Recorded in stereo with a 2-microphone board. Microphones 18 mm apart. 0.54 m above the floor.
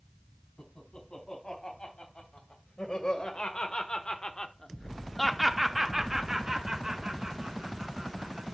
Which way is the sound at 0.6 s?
65° left (ahead or behind).